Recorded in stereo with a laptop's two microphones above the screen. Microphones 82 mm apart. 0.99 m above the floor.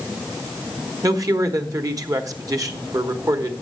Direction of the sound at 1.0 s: 45° right (ahead or behind).